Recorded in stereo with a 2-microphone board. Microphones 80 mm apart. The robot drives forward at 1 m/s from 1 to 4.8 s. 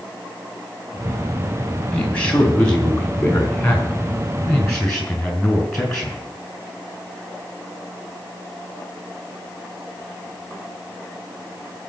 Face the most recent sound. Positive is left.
turn(degrees=10)  # may be behind; listen again after turning